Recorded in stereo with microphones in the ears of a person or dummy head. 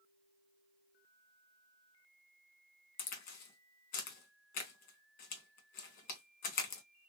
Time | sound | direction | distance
3.0 | a crack | 50° left (ahead or behind) | 1.3 m